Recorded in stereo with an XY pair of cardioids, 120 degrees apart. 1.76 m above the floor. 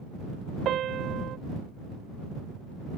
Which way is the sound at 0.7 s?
55° right.